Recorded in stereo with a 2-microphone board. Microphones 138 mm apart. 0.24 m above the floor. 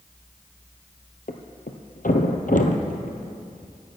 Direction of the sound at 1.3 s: 85° left.